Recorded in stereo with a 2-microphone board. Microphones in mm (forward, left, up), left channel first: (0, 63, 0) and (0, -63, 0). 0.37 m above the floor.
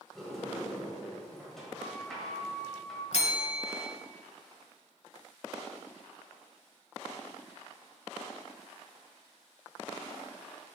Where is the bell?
60° left (ahead or behind), 0.7 m.